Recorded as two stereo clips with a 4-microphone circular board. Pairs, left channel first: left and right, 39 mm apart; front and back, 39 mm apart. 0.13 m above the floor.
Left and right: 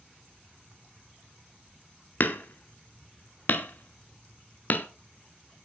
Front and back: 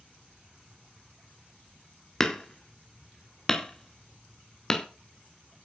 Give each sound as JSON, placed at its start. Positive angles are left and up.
{"t": 2.2, "sound": "hammering", "azimuth_deg": 75, "distance_m": 0.7}